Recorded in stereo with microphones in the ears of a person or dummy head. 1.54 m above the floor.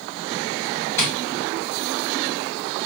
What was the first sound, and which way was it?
Tapping, 15° left (ahead or behind).